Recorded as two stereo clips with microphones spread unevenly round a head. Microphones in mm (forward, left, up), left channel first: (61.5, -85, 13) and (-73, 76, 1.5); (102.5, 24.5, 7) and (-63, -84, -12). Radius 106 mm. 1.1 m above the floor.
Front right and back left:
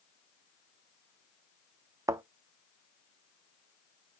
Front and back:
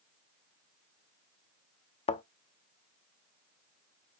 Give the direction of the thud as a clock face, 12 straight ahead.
10 o'clock.